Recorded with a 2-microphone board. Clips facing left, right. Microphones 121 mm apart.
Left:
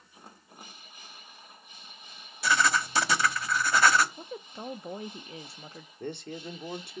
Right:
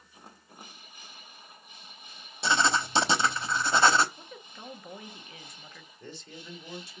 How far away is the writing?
About 1.0 m.